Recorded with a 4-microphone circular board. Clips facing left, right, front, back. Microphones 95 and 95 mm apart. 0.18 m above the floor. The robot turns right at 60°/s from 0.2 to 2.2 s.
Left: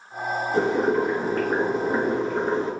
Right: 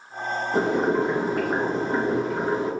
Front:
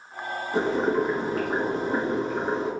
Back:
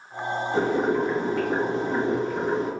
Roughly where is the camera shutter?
No camera shutter in this recording.